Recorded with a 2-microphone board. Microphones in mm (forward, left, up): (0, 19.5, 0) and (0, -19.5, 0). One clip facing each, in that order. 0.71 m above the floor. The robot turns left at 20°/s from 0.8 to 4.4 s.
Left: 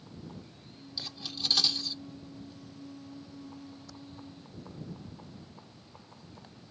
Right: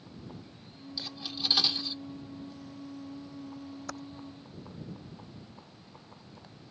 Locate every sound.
1.0 s cutlery clinking: 5° right (ahead or behind); by 2.0 s 25° right (ahead or behind)
3.9 s typing on a keyboard: 65° right (ahead or behind); by 4.0 s 70° right (ahead or behind)